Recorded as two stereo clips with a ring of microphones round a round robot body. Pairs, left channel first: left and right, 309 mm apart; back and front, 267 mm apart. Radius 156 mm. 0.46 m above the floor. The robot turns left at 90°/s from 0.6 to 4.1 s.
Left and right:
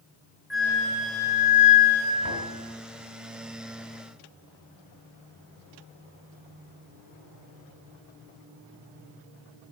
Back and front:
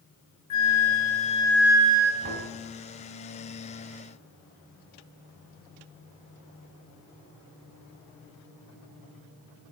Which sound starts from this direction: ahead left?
Knocking, at 2.2 s.